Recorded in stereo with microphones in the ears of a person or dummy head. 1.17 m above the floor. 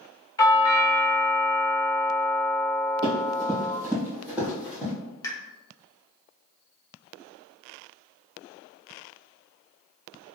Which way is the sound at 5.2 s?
20° left (ahead or behind).